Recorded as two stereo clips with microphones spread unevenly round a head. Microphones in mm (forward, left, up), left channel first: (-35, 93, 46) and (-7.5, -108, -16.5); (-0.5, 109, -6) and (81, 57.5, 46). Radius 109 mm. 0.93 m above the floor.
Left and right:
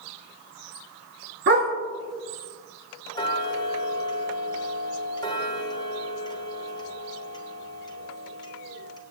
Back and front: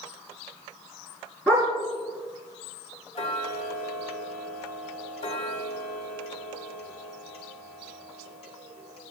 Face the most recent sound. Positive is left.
turn(degrees=170)